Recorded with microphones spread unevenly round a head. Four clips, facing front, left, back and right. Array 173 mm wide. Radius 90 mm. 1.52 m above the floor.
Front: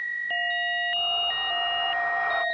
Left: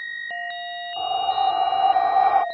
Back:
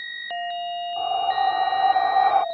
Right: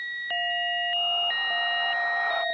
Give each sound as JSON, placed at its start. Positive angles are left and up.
{"t": 1.0, "sound": "breathing", "azimuth_deg": 125}